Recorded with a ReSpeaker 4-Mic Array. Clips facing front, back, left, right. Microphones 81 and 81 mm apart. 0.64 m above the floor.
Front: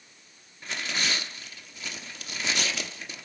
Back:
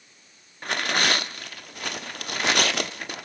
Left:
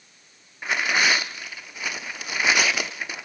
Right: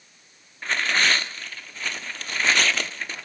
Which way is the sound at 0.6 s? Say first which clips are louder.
Back 7 dB, left 1 dB; 170° left.